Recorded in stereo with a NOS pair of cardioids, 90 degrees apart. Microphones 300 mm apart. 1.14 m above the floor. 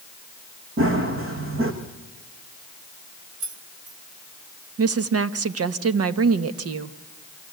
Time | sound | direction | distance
0.8 | running footsteps | 45° right | 5 m
3.4 | keys jangling | 70° right | 2.5 m
4.8 | a woman speaking | 50° right | 1.4 m